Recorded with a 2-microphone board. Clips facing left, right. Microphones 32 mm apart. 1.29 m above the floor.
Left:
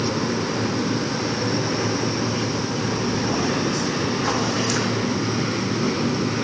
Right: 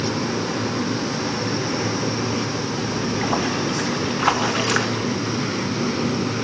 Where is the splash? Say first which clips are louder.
Right 2 dB; 45° right (ahead or behind), 1.3 m.